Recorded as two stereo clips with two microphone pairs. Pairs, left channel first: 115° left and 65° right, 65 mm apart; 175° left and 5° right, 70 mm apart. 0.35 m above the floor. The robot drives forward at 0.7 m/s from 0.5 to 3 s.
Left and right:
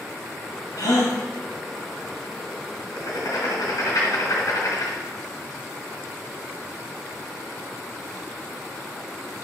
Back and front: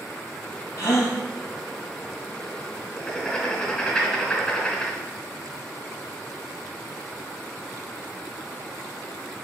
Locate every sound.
0.8 s a gasp: 125° left, 3 m; by 1.2 s 130° left, 3.5 m
3.0 s writing: 105° left, 2 m